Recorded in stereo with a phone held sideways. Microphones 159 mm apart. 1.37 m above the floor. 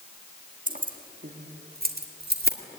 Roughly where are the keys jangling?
Right.